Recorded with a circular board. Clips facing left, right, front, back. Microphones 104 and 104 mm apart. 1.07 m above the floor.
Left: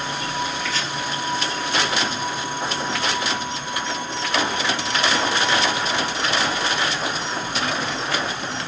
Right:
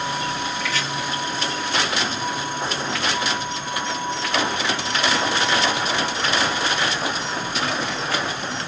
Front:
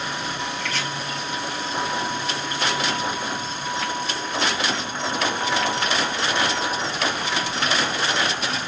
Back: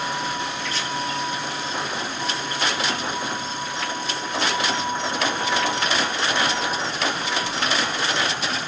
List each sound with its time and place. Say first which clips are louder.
0.6 s chopping: right 1 dB, front 1 dB; 30° left, 2.5 m